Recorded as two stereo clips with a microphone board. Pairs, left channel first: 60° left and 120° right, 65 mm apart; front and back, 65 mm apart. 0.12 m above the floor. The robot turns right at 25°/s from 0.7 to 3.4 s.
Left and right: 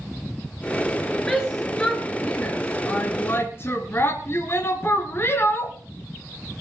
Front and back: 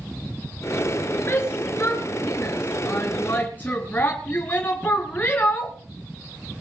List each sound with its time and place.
1.3 s a shout: 10° right, 2 m; by 5.8 s 45° left, 2 m